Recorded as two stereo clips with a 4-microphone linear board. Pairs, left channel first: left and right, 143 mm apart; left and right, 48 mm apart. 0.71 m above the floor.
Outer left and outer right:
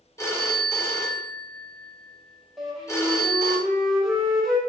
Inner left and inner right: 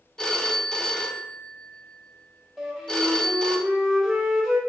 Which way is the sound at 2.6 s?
Centre (ahead or behind).